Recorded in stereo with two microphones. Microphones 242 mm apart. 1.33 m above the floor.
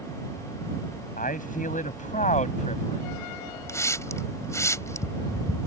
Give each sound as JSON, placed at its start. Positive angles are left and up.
{"t": 1.2, "sound": "a man speaking", "side_deg": 35}
{"t": 3.7, "sound": "a hiss", "side_deg": 10}